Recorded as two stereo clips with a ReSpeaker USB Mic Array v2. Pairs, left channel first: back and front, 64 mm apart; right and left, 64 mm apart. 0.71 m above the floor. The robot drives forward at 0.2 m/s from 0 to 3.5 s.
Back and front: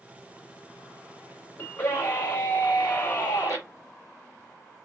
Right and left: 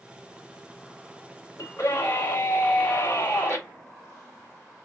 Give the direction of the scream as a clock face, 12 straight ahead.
4 o'clock.